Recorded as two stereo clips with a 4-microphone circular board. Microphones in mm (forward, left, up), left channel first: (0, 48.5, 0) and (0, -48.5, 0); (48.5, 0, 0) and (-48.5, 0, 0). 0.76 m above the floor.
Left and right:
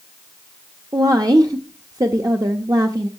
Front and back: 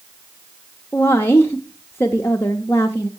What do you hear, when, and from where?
0.9 s a woman speaking: 55° right, 0.7 m